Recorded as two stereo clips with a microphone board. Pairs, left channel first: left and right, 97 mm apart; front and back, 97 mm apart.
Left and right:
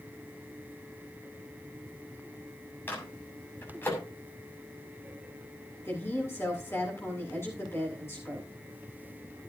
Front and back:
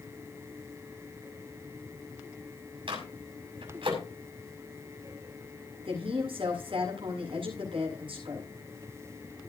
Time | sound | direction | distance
2.9 | a microwave | 160° left | 6.5 m
5.8 | a woman speaking | 155° left | 8.5 m